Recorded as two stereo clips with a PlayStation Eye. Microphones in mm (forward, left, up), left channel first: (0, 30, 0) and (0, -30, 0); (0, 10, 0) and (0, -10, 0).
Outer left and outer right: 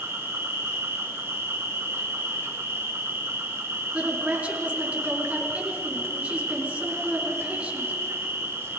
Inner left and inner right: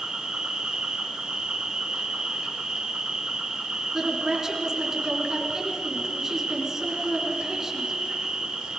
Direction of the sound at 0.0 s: 45° right (ahead or behind).